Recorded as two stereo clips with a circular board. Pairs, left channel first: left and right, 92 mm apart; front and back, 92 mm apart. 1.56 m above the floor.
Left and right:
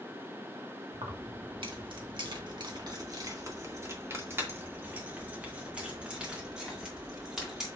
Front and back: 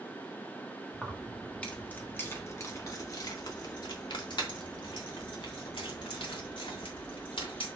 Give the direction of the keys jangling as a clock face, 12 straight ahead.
3 o'clock.